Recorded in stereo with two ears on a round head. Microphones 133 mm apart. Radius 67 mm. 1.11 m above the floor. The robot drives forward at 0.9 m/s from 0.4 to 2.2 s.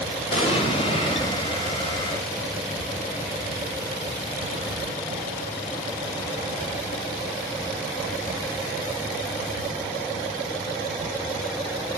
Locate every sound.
0.3 s an explosion: 45° left (ahead or behind), 5 m; by 1.4 s 40° left (ahead or behind), 5.5 m